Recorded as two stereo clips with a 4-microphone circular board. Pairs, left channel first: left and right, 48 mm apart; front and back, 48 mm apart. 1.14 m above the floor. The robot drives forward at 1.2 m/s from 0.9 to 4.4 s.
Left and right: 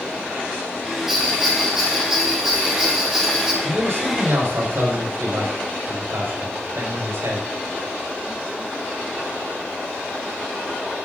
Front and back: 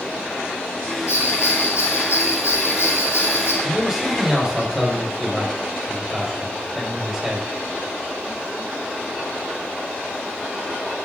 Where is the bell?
5° right, 8 m; by 3.5 s 10° right, 5 m.